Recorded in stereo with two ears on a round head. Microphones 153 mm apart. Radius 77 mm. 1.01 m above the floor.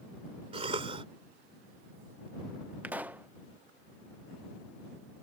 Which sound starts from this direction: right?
A cough, at 0.5 s.